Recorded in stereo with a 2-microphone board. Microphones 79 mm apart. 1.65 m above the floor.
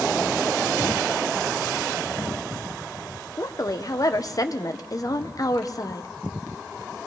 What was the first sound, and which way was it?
A woman speaking, 45° left (ahead or behind).